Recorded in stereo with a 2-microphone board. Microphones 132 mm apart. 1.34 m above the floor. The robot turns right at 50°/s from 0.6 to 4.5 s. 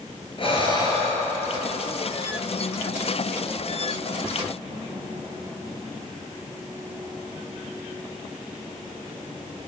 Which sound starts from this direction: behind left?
Breathing, at 0.4 s.